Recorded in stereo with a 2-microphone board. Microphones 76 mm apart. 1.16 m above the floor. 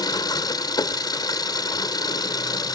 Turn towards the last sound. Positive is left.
turn(degrees=60)  # may be behind; listen again after turning